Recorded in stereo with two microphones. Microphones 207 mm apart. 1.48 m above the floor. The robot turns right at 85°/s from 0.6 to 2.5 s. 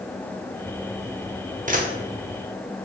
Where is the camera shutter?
40° right (ahead or behind), 0.5 m; by 1.9 s 45° right (ahead or behind), 0.5 m.